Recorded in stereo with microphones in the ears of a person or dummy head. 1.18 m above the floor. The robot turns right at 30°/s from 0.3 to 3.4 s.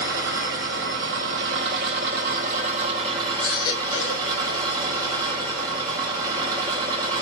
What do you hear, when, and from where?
0.0 s an engine running: 110° right, 1.2 m; by 7.2 s 20° right, 1.2 m
3.4 s a baby crying: 25° left (ahead or behind), 0.9 m